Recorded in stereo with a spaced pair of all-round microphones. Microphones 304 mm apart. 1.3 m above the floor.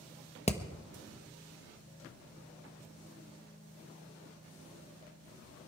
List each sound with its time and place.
0.5 s hammering: 20° left (ahead or behind), 1.2 m